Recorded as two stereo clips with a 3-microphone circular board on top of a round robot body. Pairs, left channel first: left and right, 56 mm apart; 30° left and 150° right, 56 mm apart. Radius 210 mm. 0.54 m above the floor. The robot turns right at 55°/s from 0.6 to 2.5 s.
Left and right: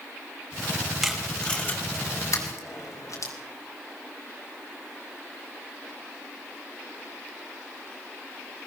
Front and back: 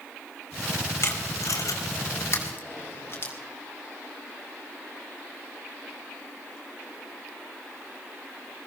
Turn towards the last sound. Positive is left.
turn(degrees=80)